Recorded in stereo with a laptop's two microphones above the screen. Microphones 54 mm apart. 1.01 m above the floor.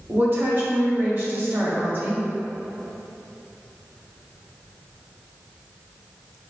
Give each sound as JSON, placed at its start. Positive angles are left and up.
{"t": 0.1, "sound": "a woman speaking", "side_deg": -40, "distance_m": 1.6}